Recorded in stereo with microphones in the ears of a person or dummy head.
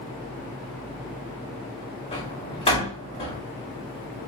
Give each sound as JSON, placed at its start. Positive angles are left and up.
{"t": 2.1, "sound": "a door slam", "side_deg": 25, "distance_m": 3.0}